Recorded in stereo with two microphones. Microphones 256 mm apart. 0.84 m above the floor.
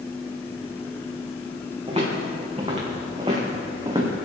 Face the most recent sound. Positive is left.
turn(degrees=-20)  # may be behind; listen again after turning